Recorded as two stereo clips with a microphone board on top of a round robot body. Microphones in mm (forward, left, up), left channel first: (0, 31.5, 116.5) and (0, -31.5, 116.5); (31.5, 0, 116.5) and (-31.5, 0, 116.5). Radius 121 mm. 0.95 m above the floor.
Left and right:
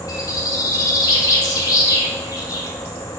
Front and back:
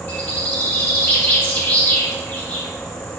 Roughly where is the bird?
Left.